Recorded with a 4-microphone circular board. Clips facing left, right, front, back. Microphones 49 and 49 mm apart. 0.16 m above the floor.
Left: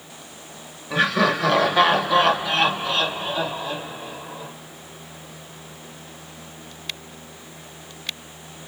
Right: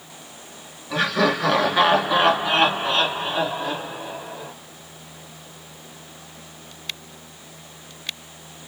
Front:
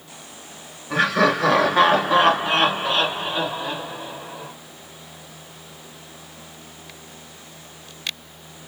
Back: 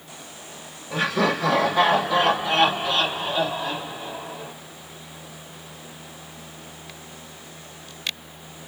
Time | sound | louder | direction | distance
0.9 | laughter | left 1 dB, front 4 dB | 10° left | 1.7 m